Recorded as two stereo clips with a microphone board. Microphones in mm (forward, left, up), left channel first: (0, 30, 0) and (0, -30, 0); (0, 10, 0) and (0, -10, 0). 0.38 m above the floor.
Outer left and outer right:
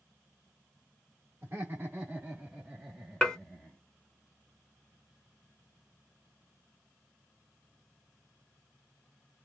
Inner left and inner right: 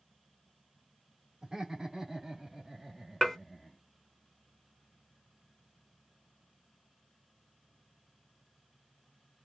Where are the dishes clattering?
10° left (ahead or behind), 0.7 m.